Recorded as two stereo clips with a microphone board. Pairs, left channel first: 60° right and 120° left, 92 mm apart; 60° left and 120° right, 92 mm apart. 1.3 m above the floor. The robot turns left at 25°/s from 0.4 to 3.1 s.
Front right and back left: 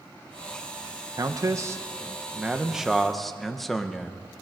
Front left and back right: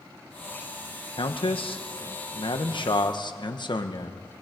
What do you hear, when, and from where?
1.2 s a man speaking: 75° left, 1.4 m; by 4.2 s 25° left, 1.4 m